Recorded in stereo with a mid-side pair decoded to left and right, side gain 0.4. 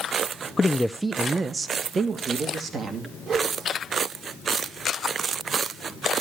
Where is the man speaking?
30° left, 0.5 m; by 3.1 s 60° right, 2.5 m.